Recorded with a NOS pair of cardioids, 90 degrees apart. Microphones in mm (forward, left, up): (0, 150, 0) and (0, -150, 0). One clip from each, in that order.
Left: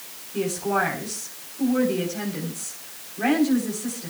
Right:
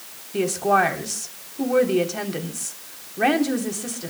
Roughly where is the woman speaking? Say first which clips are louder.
Right 5 dB; ahead right.